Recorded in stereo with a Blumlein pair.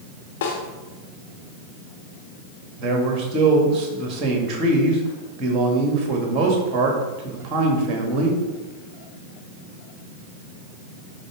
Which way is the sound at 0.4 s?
55° left.